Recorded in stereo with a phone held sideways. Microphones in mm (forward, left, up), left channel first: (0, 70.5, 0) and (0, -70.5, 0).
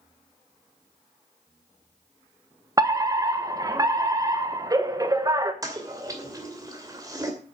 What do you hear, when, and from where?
2.8 s a fire alarm: 25° right (ahead or behind), 1.3 m
5.6 s a toilet flushing: 25° right (ahead or behind), 2.5 m